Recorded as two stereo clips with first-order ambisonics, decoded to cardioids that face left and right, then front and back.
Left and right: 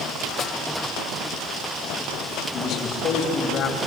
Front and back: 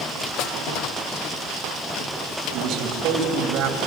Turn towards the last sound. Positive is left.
turn(degrees=145)